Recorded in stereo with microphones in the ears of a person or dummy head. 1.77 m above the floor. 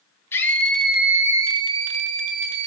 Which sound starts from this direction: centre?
A scream, at 0.3 s.